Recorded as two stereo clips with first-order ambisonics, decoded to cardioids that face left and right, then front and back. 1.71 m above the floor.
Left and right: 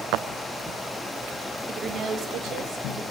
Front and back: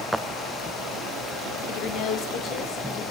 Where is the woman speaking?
15° right, 0.6 m; by 3.0 s 45° right, 1.6 m.